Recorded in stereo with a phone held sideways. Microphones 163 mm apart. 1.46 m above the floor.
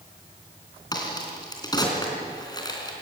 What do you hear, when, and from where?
0.9 s a crack: 25° left (ahead or behind), 3.5 m